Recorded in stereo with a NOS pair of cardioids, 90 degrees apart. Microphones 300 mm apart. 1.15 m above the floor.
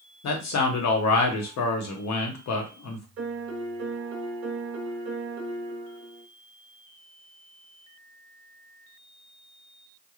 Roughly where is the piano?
Ahead right.